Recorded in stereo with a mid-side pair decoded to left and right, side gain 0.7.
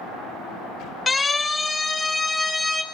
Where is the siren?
20° left, 5 m; by 2.8 s 15° left, 3.5 m.